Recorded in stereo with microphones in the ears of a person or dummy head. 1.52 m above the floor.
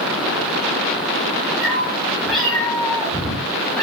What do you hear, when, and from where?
1.6 s a cat meowing: centre (ahead or behind), 6.5 m